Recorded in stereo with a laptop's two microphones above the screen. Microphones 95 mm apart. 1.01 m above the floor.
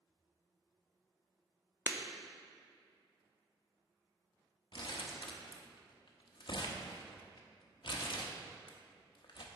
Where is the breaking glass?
20° right (ahead or behind), 0.6 m.